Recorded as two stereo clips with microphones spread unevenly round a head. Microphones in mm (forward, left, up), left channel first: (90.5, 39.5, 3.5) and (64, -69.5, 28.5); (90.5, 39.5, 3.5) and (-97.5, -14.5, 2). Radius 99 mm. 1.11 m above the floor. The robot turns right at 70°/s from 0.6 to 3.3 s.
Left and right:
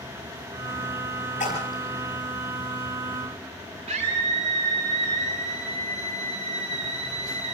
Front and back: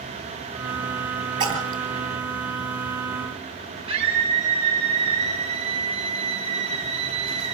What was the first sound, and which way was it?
A splash, 130° left.